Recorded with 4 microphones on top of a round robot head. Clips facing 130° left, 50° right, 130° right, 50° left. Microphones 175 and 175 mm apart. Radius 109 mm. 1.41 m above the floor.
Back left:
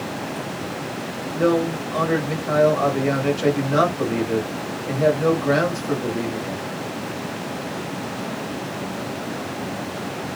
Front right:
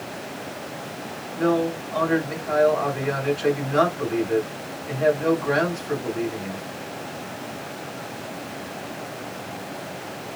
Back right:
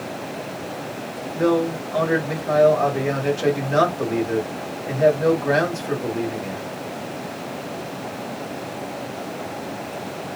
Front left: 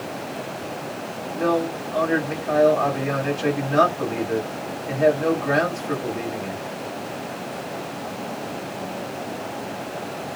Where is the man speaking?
175° left, 1.5 m.